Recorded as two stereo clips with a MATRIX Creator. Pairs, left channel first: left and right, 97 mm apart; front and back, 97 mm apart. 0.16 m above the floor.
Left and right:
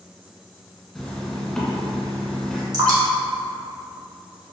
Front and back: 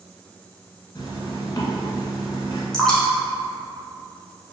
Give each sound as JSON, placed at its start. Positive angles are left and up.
{"t": 0.9, "sound": "a zipper", "azimuth_deg": 5, "distance_m": 0.8}
{"t": 2.7, "sound": "dripping", "azimuth_deg": -80, "distance_m": 0.9}